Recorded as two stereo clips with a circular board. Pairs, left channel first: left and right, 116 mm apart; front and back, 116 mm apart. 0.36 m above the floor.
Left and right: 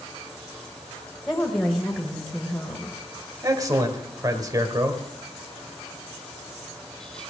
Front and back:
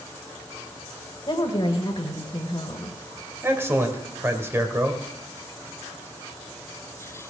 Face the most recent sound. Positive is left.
turn(degrees=-125)